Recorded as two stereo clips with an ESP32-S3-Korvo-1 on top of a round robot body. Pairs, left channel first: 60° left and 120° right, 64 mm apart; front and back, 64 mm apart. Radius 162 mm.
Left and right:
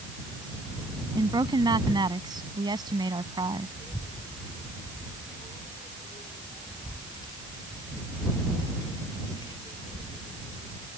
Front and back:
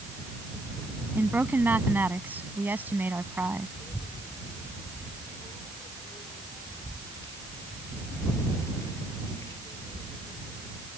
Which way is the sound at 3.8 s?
50° left.